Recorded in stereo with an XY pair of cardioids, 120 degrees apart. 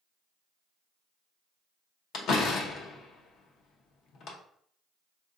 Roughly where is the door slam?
Ahead left.